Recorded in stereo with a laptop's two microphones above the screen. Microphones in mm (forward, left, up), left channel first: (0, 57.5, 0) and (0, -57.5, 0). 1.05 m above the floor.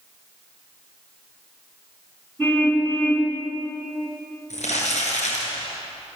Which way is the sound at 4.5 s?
80° left.